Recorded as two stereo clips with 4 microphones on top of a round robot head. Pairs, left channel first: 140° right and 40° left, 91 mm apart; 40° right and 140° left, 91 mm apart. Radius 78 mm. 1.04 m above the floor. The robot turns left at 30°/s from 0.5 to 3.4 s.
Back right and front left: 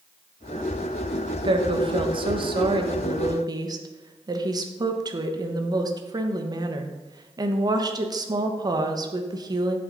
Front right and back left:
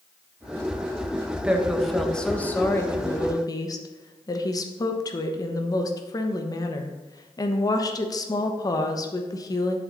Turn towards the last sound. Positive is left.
turn(degrees=0)